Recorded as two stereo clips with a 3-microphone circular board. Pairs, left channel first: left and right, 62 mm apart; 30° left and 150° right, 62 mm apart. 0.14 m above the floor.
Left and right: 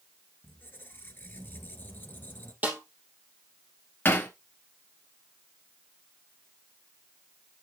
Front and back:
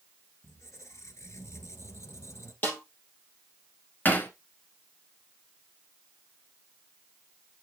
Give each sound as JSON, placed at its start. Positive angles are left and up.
{"t": 0.4, "sound": "a squeak", "azimuth_deg": 45, "distance_m": 1.4}
{"t": 2.6, "sound": "a snare drum", "azimuth_deg": -25, "distance_m": 3.0}
{"t": 4.0, "sound": "hammering", "azimuth_deg": 70, "distance_m": 1.6}